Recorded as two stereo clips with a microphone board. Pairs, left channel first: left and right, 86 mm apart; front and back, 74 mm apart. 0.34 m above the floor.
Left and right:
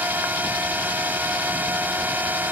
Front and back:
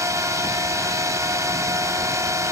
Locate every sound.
0.0 s a drone: 155° right